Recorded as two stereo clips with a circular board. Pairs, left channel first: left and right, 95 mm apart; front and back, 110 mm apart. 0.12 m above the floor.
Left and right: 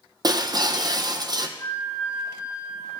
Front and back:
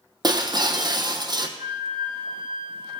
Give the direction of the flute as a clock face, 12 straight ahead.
8 o'clock.